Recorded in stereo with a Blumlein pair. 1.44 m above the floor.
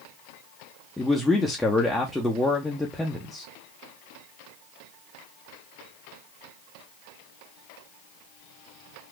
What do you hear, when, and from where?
1.0 s a man speaking: 5° left, 0.8 m